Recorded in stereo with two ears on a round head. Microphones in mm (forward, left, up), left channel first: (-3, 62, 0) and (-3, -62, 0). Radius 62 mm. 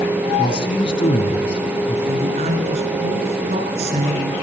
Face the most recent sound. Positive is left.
turn(degrees=-50)  # may be behind; listen again after turning